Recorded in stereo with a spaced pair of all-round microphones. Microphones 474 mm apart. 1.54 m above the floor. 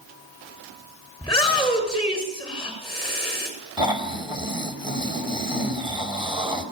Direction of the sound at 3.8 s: 10° right (ahead or behind).